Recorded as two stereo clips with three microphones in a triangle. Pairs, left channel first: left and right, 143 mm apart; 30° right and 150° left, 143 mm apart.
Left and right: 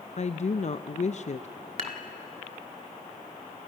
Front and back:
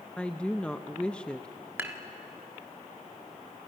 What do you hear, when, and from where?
0.2 s a woman speaking: 50° left, 0.5 m
1.8 s dishes clattering: 135° right, 1.7 m